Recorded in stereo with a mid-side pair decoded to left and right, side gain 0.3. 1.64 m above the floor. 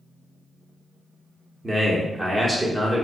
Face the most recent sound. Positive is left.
turn(degrees=-35)